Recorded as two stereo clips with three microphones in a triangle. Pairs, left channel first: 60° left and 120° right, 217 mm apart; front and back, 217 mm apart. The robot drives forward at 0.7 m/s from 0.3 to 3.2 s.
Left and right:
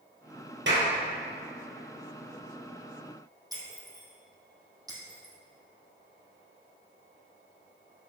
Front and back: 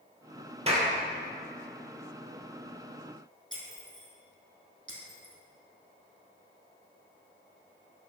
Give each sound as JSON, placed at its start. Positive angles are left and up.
{"t": 0.7, "sound": "a clap", "azimuth_deg": -125, "distance_m": 3.0}
{"t": 3.5, "sound": "breaking glass", "azimuth_deg": 170, "distance_m": 3.0}